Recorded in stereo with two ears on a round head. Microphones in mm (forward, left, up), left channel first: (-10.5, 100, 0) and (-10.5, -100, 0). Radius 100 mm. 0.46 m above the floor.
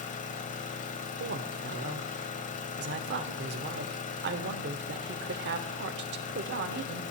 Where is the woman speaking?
50° right (ahead or behind), 1.0 m.